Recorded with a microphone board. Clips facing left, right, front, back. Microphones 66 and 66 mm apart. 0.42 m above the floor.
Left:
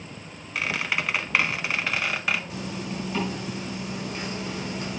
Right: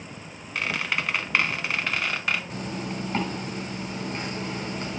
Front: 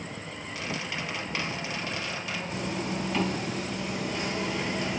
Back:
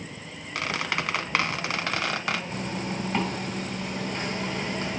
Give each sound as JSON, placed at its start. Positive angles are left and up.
{"t": 0.6, "sound": "a squeak", "azimuth_deg": 180, "distance_m": 0.6}
{"t": 2.5, "sound": "a zipper", "azimuth_deg": -125, "distance_m": 4.0}